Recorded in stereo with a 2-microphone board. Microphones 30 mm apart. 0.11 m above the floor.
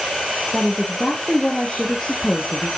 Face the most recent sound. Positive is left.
turn(degrees=10)  # may be behind; listen again after turning